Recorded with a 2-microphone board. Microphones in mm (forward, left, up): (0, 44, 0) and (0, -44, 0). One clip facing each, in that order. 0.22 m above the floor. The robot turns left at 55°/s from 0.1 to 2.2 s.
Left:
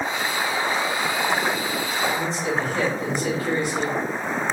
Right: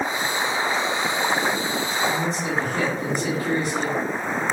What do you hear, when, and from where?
2.1 s a man speaking: 20° right (ahead or behind), 1.7 m; by 4.0 s 25° right (ahead or behind), 1.7 m